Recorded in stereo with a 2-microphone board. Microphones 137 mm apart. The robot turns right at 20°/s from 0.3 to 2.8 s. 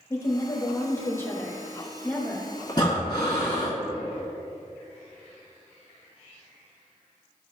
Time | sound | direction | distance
0.1 | a woman speaking | 20° left (ahead or behind) | 1.1 m
2.7 | breathing | 30° left (ahead or behind) | 1.7 m